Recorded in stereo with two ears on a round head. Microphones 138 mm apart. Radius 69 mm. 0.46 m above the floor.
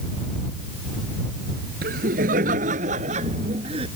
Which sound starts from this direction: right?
Laughter, at 1.8 s.